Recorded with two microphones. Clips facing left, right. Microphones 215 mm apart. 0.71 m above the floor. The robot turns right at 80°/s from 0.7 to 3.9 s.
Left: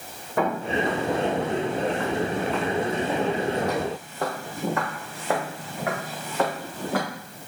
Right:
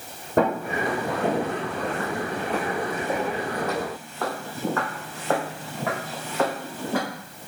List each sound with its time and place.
0.4 s footsteps: 40° right (ahead or behind), 1.6 m; by 7.0 s centre (ahead or behind), 3 m